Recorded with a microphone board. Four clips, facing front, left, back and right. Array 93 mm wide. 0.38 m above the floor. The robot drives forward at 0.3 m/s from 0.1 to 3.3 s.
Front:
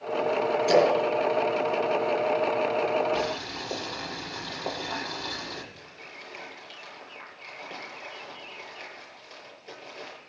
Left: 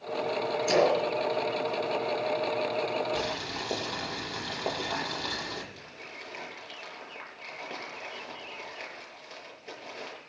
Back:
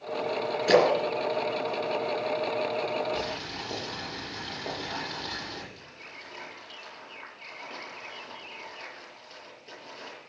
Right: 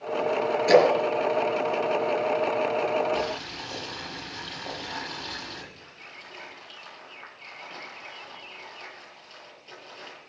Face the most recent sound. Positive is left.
turn(degrees=80)